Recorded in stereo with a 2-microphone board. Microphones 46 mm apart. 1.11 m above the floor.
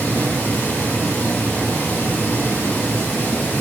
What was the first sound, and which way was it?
Running water, 55° left (ahead or behind).